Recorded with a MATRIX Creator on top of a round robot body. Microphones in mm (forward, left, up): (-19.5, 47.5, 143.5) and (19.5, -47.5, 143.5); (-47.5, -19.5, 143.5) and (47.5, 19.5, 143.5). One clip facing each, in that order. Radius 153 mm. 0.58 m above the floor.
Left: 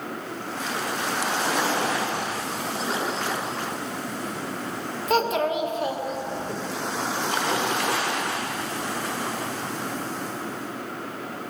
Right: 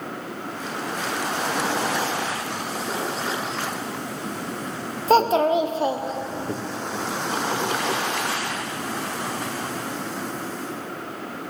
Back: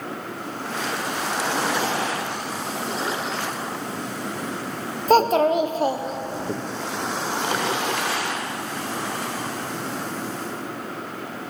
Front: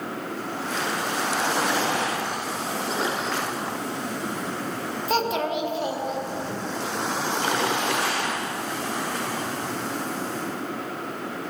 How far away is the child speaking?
About 1.1 m.